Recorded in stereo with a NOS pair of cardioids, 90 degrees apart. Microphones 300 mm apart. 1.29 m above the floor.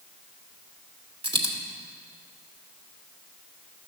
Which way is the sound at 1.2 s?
20° right.